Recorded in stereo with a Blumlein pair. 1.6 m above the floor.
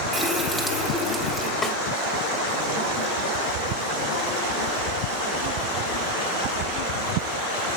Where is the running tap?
Straight ahead, 2.5 m.